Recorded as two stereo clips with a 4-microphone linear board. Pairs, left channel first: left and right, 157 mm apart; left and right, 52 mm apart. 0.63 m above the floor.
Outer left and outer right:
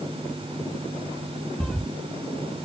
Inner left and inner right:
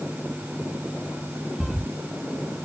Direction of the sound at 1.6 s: 5° left (ahead or behind).